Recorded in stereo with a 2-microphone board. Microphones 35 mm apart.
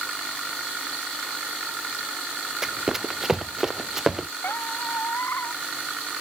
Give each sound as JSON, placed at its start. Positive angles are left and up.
{"t": 2.6, "sound": "running footsteps", "side_deg": -15}
{"t": 4.4, "sound": "a squeak", "side_deg": 85}